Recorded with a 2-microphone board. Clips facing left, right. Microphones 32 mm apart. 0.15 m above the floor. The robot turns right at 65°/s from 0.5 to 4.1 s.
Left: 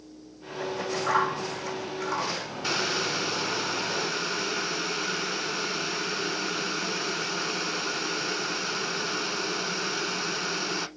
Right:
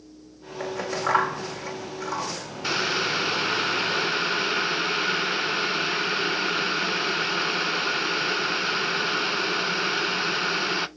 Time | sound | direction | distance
0.6 | scissors | 80° right | 4 m
2.6 | boiling | 160° right | 0.5 m